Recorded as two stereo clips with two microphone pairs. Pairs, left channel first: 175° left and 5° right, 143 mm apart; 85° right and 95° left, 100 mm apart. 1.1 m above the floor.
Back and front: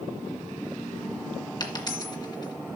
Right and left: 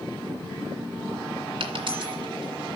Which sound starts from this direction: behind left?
A dropped coin, at 1.6 s.